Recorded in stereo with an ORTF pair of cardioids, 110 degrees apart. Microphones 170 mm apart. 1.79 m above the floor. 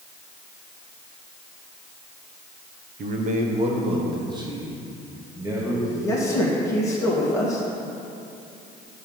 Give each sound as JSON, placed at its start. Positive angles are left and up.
{"t": 3.0, "sound": "a man speaking", "azimuth_deg": -50, "distance_m": 1.1}
{"t": 5.8, "sound": "a man speaking", "azimuth_deg": 15, "distance_m": 2.5}